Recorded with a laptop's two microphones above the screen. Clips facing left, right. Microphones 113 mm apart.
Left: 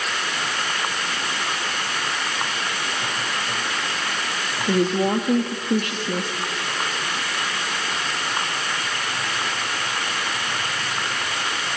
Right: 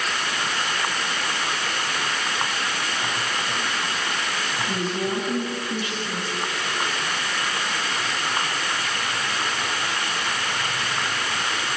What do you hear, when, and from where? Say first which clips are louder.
4.7 s a woman speaking: left 9 dB; 65° left (ahead or behind), 1.7 m